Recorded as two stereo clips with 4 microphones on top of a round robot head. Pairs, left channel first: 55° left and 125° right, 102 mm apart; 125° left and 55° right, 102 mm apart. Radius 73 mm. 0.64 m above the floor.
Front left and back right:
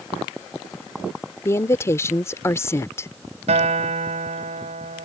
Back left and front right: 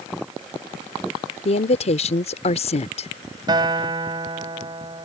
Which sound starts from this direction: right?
A guitar, at 3.5 s.